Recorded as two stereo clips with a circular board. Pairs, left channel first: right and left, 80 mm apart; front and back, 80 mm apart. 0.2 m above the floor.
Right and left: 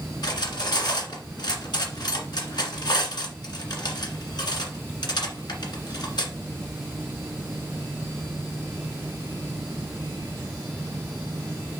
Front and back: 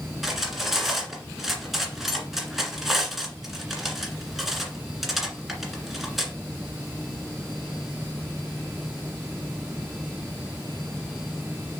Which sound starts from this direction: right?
Cutlery clinking, at 0.2 s.